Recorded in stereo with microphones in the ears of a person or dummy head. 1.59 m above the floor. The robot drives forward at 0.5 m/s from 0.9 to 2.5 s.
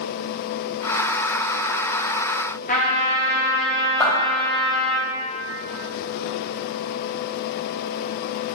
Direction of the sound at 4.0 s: 10° left (ahead or behind).